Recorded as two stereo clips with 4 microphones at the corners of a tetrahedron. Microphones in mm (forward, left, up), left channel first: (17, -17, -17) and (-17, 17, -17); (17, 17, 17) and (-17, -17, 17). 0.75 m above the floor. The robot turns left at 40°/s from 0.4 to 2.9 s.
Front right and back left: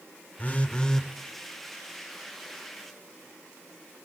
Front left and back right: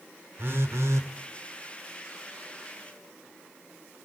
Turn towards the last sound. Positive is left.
turn(degrees=160)